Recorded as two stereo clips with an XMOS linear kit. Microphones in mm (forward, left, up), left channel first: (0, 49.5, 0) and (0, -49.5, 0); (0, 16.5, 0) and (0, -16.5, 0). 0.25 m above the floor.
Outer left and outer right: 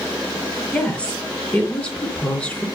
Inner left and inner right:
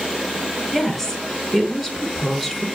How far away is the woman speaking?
About 4 m.